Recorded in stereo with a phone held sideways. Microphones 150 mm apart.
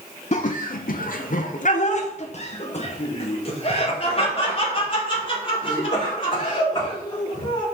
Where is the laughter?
50° left (ahead or behind), 0.6 m; by 7.7 s 30° left (ahead or behind), 4.5 m.